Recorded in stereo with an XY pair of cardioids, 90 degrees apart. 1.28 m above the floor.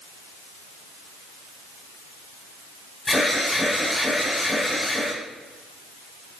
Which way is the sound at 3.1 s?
20° left.